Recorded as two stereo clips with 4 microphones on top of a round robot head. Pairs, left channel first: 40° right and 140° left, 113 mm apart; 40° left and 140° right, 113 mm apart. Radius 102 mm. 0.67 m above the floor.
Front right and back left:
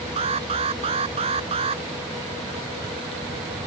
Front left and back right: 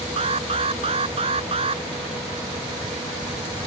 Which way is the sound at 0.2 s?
Straight behind.